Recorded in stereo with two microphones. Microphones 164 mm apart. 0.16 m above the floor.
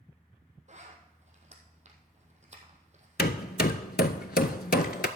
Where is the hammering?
75° left (ahead or behind), 0.6 m.